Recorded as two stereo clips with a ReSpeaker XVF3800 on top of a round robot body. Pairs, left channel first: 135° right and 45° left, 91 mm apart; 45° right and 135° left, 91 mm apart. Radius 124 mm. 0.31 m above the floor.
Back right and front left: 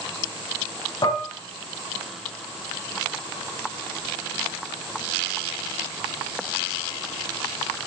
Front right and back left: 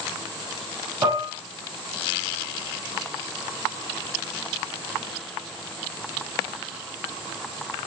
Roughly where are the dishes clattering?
Behind.